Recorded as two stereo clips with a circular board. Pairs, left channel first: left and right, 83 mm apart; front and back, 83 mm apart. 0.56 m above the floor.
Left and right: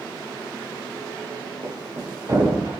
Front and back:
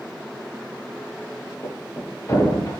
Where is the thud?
50° right, 5 m.